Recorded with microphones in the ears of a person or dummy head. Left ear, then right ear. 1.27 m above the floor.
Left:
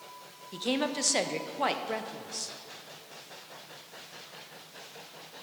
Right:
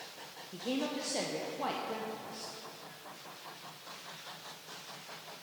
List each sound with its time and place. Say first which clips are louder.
0.5 s a woman speaking: left 6 dB; 50° left (ahead or behind), 0.7 m